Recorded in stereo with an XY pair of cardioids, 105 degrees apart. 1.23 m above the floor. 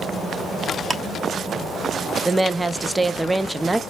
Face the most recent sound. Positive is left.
turn(degrees=-15)